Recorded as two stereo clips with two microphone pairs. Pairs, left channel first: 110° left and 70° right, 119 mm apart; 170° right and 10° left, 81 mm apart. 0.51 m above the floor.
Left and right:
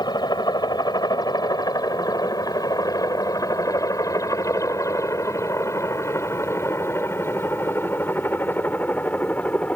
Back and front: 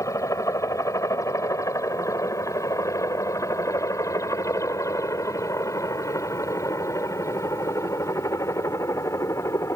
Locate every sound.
0.0 s a helicopter: 155° left; by 9.8 s straight behind